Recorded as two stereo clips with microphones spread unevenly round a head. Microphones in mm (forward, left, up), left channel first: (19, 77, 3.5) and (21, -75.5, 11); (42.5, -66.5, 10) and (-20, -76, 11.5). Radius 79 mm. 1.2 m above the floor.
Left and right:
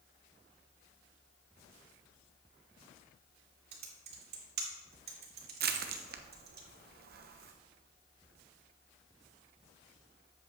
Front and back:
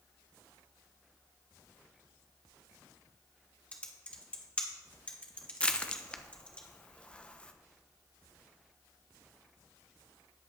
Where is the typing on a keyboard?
60° right, 2 m.